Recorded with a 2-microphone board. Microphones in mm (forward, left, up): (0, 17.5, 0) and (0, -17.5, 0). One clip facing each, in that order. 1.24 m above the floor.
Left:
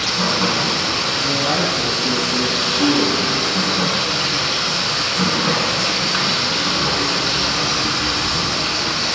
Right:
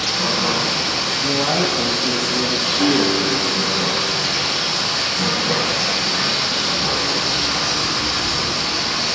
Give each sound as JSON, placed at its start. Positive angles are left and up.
{"t": 0.0, "sound": "running water", "side_deg": 45, "distance_m": 1.6}
{"t": 1.2, "sound": "a man speaking", "side_deg": -30, "distance_m": 1.1}
{"t": 2.8, "sound": "a guitar", "side_deg": -15, "distance_m": 0.9}